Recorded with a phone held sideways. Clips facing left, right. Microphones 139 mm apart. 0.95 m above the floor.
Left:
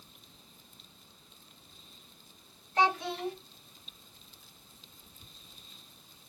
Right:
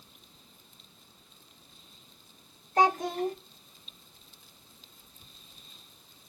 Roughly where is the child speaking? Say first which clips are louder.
Right 4 dB; right.